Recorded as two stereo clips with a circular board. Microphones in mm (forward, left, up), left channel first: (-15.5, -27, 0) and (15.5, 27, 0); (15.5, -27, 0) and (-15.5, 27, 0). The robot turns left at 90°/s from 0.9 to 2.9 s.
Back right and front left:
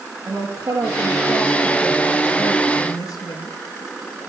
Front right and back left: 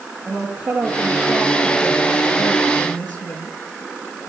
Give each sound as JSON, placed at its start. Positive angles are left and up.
{"t": 0.3, "sound": "a woman speaking", "azimuth_deg": 55, "distance_m": 6.5}